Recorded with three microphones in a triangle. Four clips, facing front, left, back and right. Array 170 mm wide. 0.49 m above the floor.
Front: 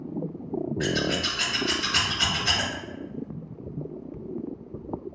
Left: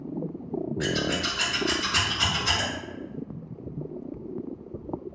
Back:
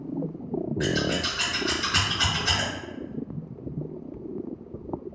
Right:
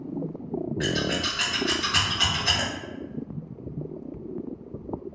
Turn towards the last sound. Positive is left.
turn(degrees=-85)